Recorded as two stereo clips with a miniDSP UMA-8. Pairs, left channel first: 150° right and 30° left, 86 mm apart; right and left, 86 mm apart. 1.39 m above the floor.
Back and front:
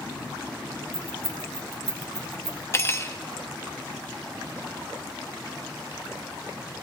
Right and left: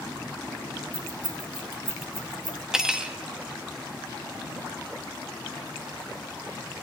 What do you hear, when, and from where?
0.9 s keys jangling: 80° left, 3 m
2.7 s cutlery clinking: 170° left, 0.9 m